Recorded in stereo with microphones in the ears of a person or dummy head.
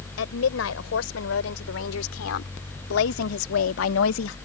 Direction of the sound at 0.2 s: 75° left (ahead or behind).